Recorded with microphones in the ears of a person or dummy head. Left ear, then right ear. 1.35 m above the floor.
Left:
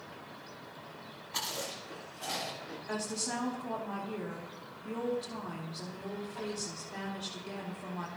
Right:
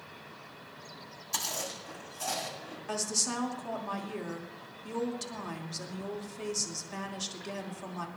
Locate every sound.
1.3 s chewing: 80° right, 6.5 m
2.9 s a woman speaking: 85° right, 3 m